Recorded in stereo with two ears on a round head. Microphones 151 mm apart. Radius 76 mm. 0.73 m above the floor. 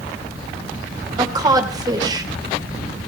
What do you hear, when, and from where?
1.2 s a woman speaking: 25° right (ahead or behind), 3 m